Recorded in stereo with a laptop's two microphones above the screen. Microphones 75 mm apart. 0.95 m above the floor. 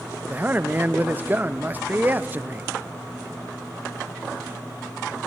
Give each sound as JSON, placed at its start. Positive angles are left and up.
{"t": 0.3, "sound": "a man speaking", "side_deg": -25, "distance_m": 0.5}